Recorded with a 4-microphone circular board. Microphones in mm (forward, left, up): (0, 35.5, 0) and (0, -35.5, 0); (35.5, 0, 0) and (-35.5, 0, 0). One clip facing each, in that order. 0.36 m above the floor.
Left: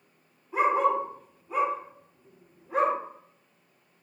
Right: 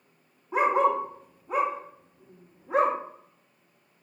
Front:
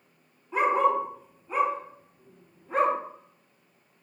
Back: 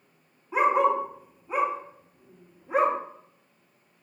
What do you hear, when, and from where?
0.5 s a dog barking: 105° right, 0.6 m